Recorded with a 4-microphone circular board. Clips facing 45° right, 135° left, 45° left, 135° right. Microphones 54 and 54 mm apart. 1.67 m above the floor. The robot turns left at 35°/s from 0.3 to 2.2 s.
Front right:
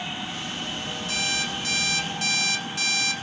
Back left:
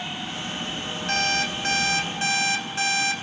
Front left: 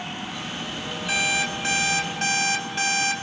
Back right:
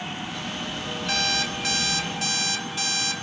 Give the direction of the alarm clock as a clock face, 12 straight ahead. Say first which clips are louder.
Back left 5 dB, front left 3 dB; 8 o'clock.